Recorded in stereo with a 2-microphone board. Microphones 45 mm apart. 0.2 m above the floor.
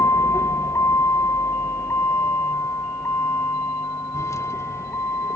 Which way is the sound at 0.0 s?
85° left.